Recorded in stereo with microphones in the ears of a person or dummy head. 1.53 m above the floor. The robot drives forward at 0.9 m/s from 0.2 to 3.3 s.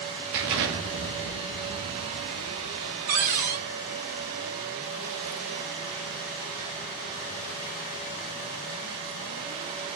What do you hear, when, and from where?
0.3 s an explosion: 65° right (ahead or behind), 2.5 m; by 3.0 s 55° right (ahead or behind), 2.5 m
3.1 s a cupboard door: 35° right (ahead or behind), 1.0 m; by 3.6 s 30° right (ahead or behind), 1.1 m